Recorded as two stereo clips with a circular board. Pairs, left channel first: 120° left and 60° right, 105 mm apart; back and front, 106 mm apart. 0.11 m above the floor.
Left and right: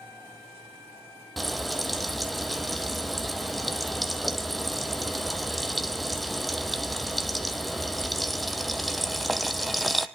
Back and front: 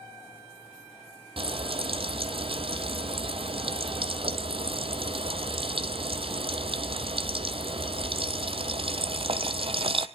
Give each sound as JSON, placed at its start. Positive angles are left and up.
{"t": 1.4, "sound": "frying", "azimuth_deg": 30, "distance_m": 0.9}